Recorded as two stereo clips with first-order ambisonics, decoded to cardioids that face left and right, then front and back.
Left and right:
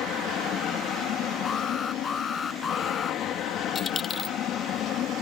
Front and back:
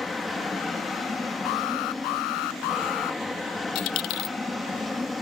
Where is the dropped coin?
20° left.